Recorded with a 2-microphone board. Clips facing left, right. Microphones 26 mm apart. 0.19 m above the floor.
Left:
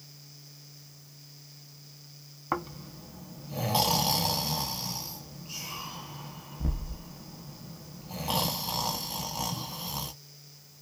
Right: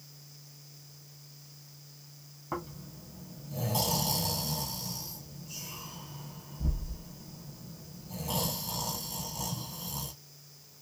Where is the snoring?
40° left (ahead or behind), 0.6 m.